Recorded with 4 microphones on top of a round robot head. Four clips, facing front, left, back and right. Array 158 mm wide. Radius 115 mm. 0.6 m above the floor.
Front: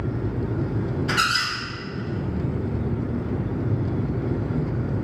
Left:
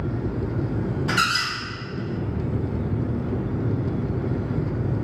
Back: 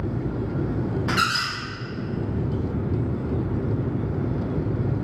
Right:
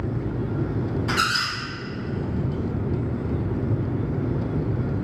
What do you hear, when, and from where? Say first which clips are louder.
1.1 s a squeak: left 1 dB, front 1 dB; 170° left, 1.8 m